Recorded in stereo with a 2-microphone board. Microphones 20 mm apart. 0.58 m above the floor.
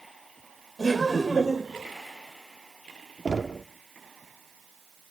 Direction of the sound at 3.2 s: 30° right (ahead or behind).